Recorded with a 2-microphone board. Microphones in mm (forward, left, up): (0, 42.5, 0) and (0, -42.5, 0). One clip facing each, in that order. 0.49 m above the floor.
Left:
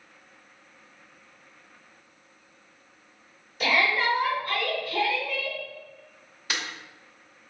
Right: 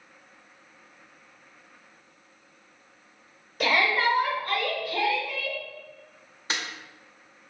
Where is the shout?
50° right (ahead or behind), 1.4 m; by 5.6 s 5° right (ahead or behind), 1.6 m.